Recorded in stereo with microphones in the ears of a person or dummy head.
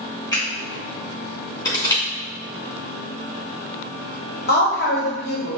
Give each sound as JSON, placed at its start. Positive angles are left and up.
{"t": 0.3, "sound": "a finger snap", "side_deg": 20, "distance_m": 1.5}
{"t": 1.6, "sound": "crushing", "side_deg": 15, "distance_m": 2.0}
{"t": 4.5, "sound": "a woman speaking", "side_deg": 45, "distance_m": 1.1}